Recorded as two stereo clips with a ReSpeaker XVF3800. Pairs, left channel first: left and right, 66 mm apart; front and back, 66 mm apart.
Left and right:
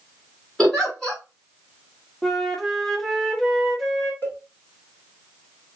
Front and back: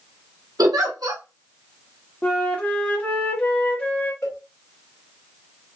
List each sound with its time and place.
0.6 s a giggle: 170° left, 1.4 m
2.2 s a flute: 10° left, 0.8 m
4.2 s a cowbell: 40° left, 1.6 m